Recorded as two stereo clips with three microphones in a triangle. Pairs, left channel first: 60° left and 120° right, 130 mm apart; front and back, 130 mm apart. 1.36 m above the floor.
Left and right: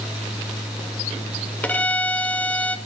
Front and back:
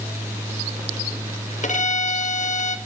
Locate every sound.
1.6 s a violin: 20° right, 1.5 m